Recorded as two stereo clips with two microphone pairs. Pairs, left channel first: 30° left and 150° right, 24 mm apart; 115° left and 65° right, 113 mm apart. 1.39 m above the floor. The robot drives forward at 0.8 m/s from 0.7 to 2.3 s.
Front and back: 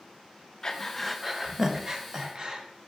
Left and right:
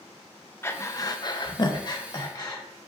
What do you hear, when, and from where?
0.6 s breathing: 65° left, 0.6 m; by 2.6 s 165° left, 1.3 m